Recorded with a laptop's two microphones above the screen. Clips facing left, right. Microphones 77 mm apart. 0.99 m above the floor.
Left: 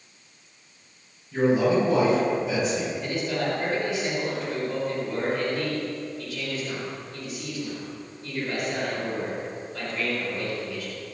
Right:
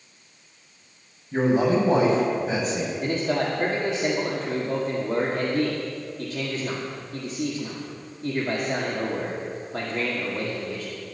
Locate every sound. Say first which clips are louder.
1.3 s a man speaking: even; 45° right (ahead or behind), 5 m
3.0 s a man speaking: right 3 dB; 65° right (ahead or behind), 2.5 m